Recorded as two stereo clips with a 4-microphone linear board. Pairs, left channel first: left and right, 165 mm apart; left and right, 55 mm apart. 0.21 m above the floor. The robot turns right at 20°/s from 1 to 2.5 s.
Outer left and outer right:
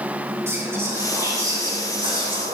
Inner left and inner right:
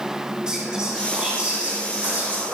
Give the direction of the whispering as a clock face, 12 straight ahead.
5 o'clock.